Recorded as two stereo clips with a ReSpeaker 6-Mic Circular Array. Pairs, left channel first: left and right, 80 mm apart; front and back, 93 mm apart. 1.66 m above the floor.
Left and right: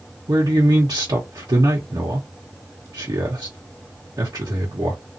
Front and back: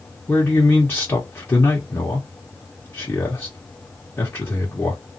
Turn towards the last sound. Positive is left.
turn(degrees=-65)